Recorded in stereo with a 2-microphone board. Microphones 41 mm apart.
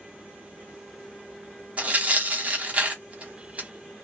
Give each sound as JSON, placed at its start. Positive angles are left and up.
{"t": 1.8, "sound": "tearing paper", "side_deg": -35, "distance_m": 1.0}